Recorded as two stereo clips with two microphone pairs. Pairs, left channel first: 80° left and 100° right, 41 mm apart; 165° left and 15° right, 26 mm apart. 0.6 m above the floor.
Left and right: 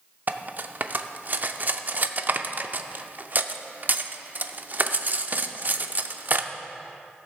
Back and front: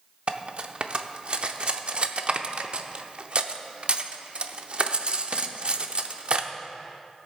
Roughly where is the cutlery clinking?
Ahead right.